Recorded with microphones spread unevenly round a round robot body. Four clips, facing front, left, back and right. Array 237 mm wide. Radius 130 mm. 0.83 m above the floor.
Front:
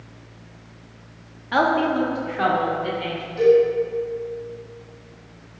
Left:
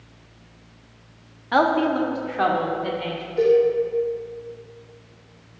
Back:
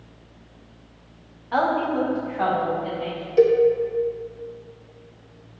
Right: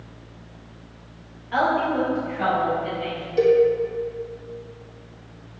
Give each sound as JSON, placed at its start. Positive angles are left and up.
{"t": 1.5, "sound": "a woman speaking", "azimuth_deg": 70, "distance_m": 1.5}
{"t": 3.4, "sound": "a cowbell", "azimuth_deg": -175, "distance_m": 1.8}